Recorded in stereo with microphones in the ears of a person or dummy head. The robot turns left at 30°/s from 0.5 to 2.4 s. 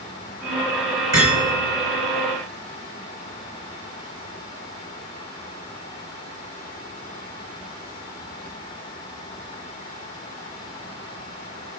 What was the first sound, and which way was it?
Hammering, 15° right (ahead or behind).